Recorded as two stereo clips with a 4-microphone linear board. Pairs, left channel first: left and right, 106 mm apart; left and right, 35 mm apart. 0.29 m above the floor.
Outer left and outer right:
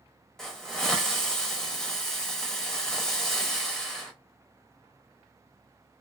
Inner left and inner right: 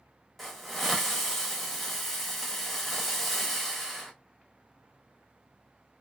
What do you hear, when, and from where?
0.4 s a hiss: 5° left (ahead or behind), 0.9 m